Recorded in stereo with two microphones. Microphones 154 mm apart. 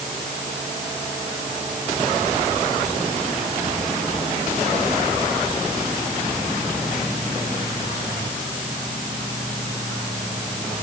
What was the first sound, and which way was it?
Only background noise.